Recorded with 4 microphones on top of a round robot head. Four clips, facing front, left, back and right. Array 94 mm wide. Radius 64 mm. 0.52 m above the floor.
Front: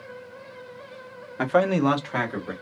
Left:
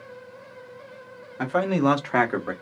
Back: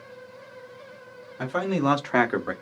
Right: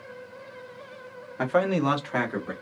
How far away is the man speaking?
About 0.8 m.